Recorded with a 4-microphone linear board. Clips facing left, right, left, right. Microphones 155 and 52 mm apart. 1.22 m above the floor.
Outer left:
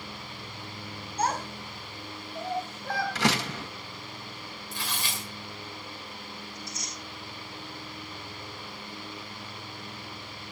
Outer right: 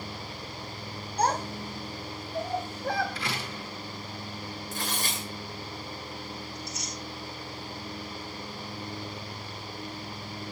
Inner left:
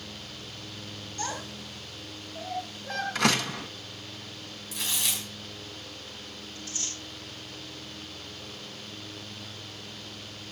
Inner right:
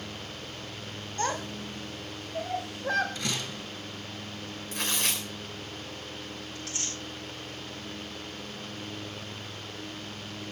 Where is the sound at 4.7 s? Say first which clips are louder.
Outer right 2 dB, inner right 2 dB; 45° right (ahead or behind), 2.5 m.